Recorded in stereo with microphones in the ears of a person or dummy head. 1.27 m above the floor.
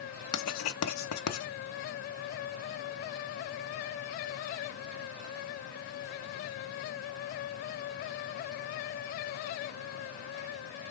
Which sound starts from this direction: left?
Writing, at 0.3 s.